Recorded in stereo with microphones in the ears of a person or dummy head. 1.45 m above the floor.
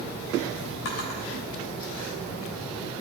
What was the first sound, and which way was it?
A drawer, 75° left (ahead or behind).